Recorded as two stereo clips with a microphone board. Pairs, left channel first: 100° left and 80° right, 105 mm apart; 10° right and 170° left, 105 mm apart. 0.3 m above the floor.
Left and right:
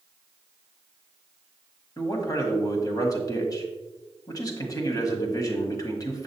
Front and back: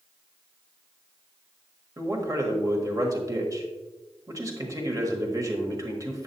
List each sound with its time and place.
2.0 s a man speaking: 130° left, 1.5 m